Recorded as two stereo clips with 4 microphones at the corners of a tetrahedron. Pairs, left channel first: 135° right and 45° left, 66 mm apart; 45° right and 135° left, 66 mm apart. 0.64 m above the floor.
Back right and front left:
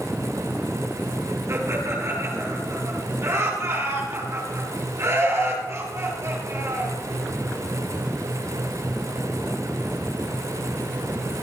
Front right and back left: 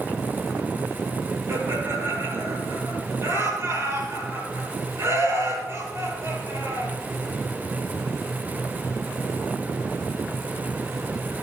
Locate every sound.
1.5 s laughter: 85° left, 10 m